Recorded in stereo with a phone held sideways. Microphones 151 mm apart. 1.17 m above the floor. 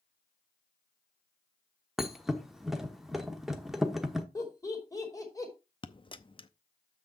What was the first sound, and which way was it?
A thud, centre (ahead or behind).